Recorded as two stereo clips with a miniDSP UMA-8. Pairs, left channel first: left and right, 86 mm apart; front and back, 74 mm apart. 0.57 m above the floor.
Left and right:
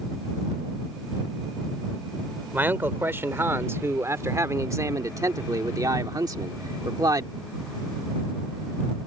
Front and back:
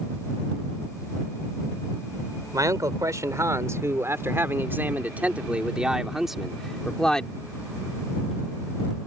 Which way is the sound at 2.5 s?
155° right.